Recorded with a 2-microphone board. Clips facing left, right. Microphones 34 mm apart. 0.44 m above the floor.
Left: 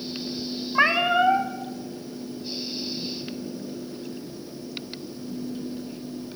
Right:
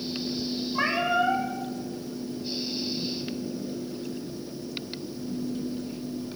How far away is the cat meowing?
About 0.5 m.